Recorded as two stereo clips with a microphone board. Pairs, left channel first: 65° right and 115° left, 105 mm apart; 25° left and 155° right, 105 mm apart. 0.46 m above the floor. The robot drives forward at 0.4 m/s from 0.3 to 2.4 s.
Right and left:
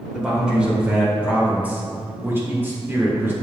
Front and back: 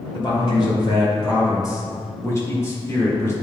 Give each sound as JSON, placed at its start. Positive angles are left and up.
{"t": 0.1, "sound": "a man speaking", "azimuth_deg": 30, "distance_m": 1.9}